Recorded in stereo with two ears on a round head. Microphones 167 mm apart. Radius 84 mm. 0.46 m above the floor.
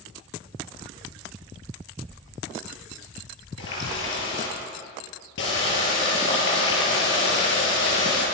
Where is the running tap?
70° left (ahead or behind), 7.5 m.